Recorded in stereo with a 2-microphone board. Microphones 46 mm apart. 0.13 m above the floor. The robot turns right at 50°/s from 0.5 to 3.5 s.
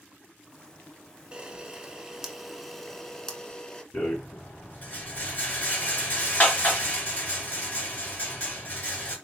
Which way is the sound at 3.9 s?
30° left (ahead or behind).